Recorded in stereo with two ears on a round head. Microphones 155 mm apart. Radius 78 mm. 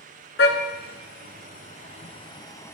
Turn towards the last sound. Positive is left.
turn(degrees=15)  # may be behind; listen again after turning